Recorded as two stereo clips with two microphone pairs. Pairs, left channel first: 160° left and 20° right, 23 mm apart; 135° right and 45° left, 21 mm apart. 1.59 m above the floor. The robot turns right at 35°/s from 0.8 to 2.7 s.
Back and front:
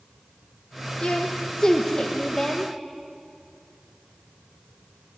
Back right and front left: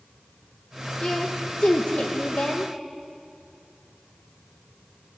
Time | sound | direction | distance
1.0 | a woman speaking | 175° right | 1.5 m